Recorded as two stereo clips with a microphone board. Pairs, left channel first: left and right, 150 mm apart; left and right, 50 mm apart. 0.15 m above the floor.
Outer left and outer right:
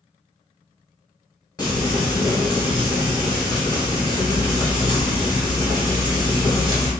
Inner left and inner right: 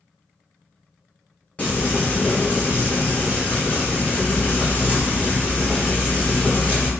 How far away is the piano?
No piano in this recording.